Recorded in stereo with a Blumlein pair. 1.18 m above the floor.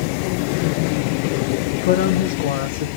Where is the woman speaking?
55° left, 0.9 m.